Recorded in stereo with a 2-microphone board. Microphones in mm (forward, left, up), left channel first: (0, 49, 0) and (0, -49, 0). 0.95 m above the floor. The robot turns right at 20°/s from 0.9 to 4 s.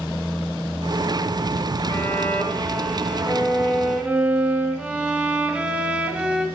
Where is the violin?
150° left, 1.5 m; by 6.5 s 170° right, 1.5 m.